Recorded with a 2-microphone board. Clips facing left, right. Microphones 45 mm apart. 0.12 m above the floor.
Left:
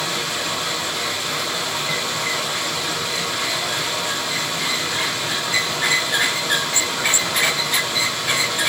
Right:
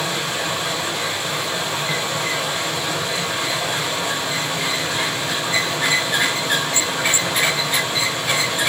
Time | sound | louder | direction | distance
0.0 | running water | right 1 dB | 20° right (ahead or behind) | 4 m